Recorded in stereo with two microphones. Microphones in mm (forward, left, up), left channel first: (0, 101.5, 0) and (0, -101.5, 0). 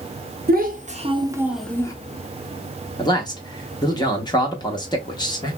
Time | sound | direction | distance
0.5 | a child speaking | 50° right (ahead or behind) | 0.8 m
3.0 | a man speaking | 20° left (ahead or behind) | 0.7 m